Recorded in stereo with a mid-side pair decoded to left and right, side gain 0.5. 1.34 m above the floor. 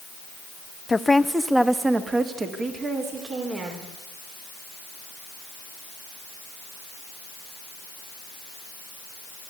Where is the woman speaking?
20° left, 1.0 m; by 3.9 s 50° right, 4 m.